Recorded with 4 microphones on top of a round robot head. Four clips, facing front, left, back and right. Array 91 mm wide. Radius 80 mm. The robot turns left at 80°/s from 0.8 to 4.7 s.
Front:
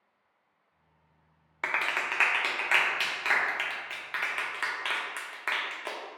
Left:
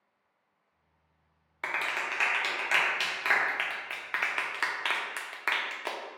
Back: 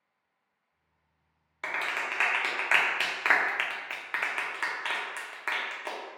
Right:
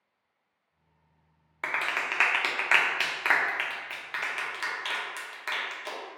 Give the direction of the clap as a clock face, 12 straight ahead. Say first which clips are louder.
Right 2 dB, front 2 dB; 1 o'clock.